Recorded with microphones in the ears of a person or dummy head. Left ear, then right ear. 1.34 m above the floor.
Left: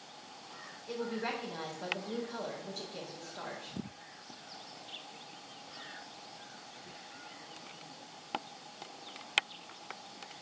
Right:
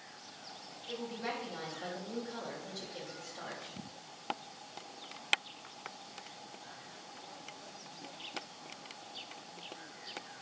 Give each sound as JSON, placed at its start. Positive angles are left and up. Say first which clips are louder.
{"t": 0.9, "sound": "a woman speaking", "louder": "left 3 dB", "side_deg": 20, "distance_m": 4.0}